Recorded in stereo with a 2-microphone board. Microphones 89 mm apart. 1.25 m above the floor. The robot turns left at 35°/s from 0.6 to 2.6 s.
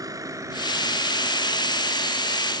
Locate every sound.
0.0 s a vehicle: 40° right (ahead or behind); by 2.6 s 90° right